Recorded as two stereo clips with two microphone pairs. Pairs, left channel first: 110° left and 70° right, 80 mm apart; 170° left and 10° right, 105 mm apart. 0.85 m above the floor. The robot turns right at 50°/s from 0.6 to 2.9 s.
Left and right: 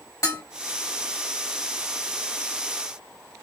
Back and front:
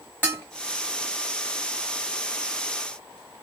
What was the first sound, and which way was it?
Dishes clattering, 60° left.